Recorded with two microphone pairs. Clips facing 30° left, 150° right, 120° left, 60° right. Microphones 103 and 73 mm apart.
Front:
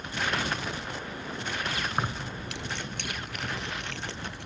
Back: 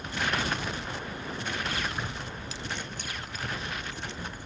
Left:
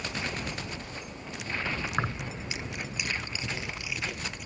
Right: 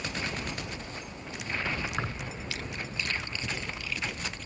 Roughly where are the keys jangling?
Ahead left.